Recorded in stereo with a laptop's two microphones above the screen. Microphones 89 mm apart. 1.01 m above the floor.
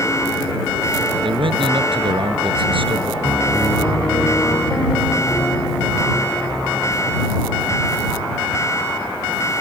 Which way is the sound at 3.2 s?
20° left (ahead or behind).